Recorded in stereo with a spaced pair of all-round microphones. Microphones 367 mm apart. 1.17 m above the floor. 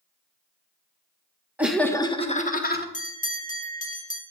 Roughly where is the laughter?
Centre.